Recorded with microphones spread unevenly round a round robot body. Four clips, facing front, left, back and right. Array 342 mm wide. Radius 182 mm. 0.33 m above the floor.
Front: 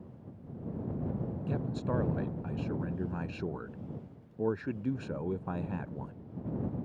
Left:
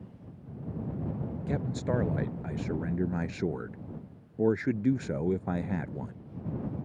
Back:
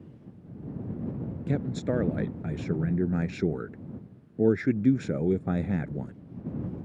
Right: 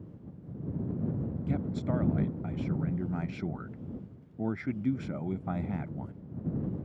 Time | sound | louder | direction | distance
1.5 | a man speaking | left 2 dB, back 6 dB | 170° right | ?